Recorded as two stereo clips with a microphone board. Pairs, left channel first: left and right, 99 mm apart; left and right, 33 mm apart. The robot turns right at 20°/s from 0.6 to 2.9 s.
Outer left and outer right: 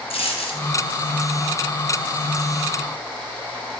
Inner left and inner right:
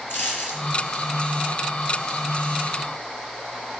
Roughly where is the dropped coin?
Left.